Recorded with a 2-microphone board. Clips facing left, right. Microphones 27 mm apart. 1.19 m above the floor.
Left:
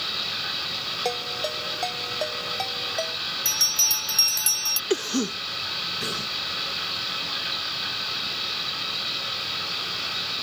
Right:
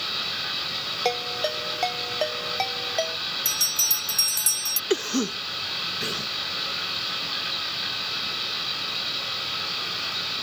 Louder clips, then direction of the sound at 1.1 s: Right 4 dB; 35° right (ahead or behind).